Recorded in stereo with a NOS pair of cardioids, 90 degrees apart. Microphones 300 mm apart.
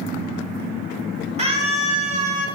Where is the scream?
20° right, 4.5 m; by 2.5 s 25° right, 5 m.